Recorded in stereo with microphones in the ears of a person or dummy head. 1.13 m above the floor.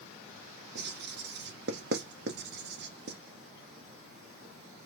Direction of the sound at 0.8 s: 55° right (ahead or behind).